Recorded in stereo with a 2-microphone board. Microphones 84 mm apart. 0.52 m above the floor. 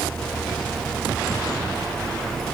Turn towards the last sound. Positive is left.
No sound to turn to.